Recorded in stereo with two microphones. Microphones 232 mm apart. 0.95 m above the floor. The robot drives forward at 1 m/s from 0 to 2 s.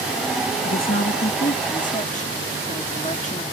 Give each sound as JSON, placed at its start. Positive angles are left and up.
{"t": 0.7, "sound": "a woman speaking", "side_deg": 65}